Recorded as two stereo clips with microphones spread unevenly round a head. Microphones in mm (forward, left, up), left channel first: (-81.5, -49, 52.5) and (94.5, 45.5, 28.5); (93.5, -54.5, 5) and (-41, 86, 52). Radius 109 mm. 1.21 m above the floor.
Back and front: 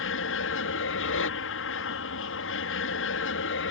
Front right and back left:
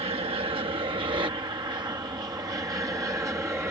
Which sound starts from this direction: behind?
An aircraft, at 0.0 s.